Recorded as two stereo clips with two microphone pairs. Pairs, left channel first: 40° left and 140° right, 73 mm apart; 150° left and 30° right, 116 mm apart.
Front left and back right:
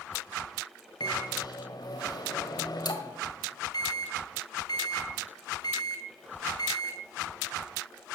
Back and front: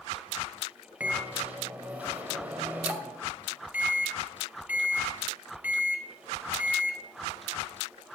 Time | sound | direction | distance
1.0 | a microwave | 50° left | 1.8 m